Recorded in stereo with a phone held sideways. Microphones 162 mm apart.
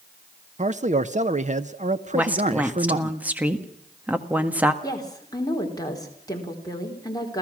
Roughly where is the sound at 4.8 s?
Left.